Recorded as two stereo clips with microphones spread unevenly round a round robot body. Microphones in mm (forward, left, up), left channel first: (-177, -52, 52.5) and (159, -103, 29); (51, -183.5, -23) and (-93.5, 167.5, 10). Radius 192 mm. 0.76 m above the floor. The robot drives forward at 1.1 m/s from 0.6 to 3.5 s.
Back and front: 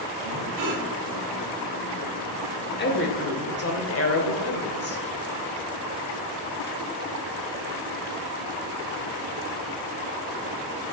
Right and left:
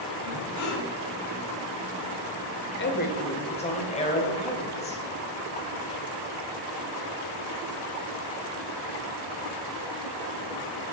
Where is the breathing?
25° right, 2.5 m; by 0.8 s 30° right, 2.5 m.